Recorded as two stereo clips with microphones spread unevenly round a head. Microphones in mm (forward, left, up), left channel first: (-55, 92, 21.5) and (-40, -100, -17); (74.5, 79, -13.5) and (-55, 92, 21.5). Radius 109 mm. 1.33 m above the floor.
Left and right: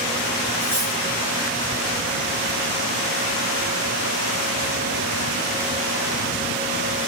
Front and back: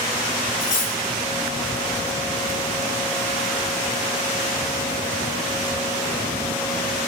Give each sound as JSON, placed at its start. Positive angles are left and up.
{"t": 0.6, "sound": "cutlery clinking", "azimuth_deg": 10, "distance_m": 2.0}